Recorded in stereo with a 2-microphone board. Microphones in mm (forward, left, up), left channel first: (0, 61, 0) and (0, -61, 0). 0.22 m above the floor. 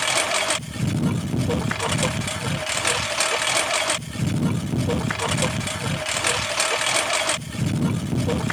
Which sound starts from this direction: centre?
A lawn mower, at 0.0 s.